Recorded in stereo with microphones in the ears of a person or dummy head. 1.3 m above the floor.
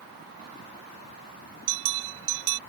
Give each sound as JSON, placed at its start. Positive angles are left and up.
{"t": 1.7, "sound": "a bell", "side_deg": -75}